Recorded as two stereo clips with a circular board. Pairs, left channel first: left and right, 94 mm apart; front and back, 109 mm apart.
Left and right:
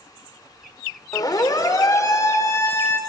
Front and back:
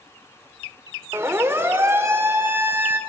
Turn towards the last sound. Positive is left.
turn(degrees=130)